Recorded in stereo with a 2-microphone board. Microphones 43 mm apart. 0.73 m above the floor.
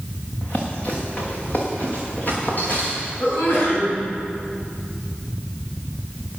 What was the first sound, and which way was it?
Running footsteps, 30° left (ahead or behind).